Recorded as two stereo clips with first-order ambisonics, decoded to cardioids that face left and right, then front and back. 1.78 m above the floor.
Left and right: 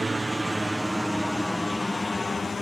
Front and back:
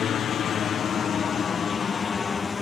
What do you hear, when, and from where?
0.0 s a helicopter: 20° right; by 2.6 s 40° left